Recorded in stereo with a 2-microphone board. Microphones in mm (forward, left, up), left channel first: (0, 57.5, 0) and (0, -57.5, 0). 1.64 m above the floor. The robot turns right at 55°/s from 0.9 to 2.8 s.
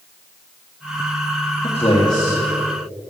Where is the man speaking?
120° left, 1.5 m; by 2.4 s 160° left, 1.5 m.